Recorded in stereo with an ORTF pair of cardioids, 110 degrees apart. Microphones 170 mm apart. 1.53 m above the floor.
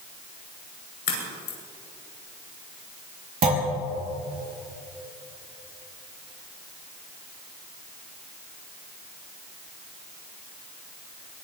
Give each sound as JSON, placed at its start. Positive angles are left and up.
{"t": 1.1, "sound": "a crack", "azimuth_deg": 65, "distance_m": 6.5}
{"t": 3.4, "sound": "a clunk", "azimuth_deg": -55, "distance_m": 4.5}